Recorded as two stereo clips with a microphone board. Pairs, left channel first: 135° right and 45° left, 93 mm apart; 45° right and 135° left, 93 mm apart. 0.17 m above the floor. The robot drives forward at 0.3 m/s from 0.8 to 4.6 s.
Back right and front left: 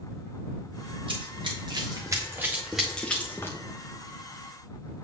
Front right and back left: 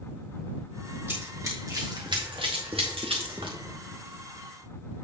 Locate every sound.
1.1 s running footsteps: 70° left, 2.5 m; by 3.6 s 165° left, 1.7 m